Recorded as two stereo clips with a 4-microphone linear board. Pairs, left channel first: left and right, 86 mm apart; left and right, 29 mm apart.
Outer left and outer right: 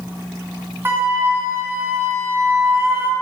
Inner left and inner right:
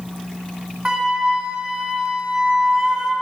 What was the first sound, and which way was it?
A flute, 25° right (ahead or behind).